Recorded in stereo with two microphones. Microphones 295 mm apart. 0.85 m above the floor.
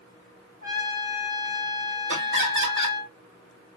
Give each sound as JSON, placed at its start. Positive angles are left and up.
{"t": 0.6, "sound": "a trumpet", "side_deg": -30, "distance_m": 1.6}
{"t": 2.1, "sound": "laughter", "side_deg": -40, "distance_m": 1.5}